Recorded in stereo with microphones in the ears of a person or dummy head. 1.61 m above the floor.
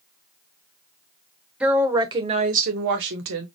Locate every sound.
1.6 s a woman speaking: 5° right (ahead or behind), 1.2 m; by 3.5 s 75° right (ahead or behind), 1.2 m